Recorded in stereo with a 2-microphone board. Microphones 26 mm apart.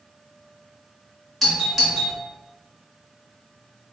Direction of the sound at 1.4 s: 5° left (ahead or behind).